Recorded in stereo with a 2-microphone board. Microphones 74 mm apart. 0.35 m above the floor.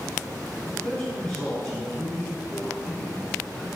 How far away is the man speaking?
About 3.5 m.